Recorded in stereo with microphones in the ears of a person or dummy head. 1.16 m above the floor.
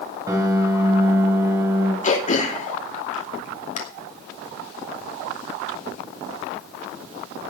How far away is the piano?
About 3 m.